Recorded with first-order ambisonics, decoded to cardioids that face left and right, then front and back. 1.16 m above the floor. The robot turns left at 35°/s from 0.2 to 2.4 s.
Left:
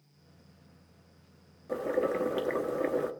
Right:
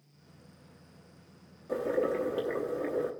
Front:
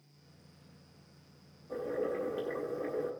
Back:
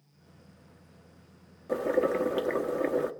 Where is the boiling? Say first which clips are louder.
Even, back 8 dB; 170° left, 0.8 m; by 3.1 s 145° left, 0.8 m.